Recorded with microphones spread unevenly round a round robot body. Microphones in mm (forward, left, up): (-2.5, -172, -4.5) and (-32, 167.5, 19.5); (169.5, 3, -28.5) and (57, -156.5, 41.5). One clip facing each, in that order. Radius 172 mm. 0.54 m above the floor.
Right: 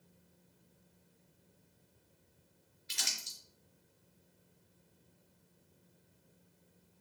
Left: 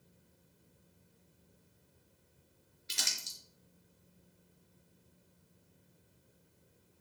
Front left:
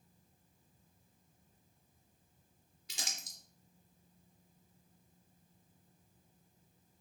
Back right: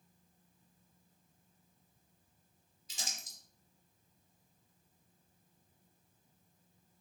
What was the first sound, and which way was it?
Crumpling, 50° left.